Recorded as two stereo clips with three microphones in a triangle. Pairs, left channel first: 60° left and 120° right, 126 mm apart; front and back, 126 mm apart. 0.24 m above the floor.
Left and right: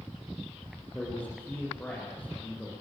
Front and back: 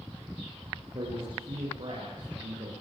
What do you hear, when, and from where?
0.9 s a man speaking: 135° left, 8.5 m